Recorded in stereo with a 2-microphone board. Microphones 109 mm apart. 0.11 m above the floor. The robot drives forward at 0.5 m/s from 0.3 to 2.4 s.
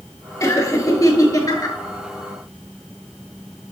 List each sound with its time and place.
0.4 s laughter: 30° left (ahead or behind), 2 m; by 1.8 s 35° left (ahead or behind), 1.7 m